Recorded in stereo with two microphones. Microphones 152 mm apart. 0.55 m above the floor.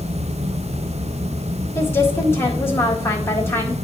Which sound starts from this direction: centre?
A woman speaking, at 1.8 s.